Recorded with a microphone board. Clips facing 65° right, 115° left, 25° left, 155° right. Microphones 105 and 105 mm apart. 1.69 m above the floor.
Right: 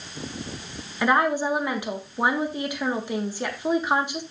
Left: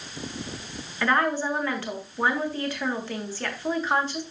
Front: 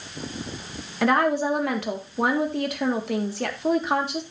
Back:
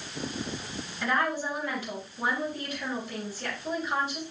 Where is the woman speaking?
5° left, 1.6 m.